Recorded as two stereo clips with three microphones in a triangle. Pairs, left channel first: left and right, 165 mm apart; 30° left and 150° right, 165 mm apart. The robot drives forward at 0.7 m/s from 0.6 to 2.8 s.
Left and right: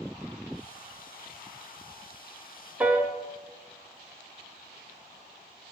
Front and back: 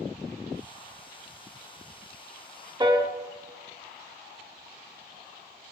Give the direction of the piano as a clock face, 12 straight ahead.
5 o'clock.